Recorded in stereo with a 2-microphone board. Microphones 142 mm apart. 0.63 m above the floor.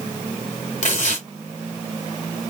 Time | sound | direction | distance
0.8 | tearing paper | 60° left (ahead or behind) | 2.5 m